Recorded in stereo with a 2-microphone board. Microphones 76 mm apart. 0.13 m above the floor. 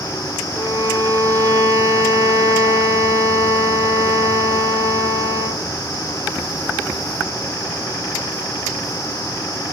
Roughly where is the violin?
Right.